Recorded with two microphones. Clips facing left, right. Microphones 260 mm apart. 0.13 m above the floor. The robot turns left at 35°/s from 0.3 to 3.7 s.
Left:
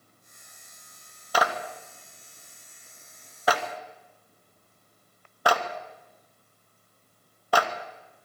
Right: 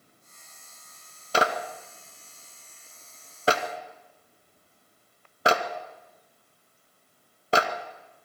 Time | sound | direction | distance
1.3 | a clap | 25° right (ahead or behind) | 1.2 m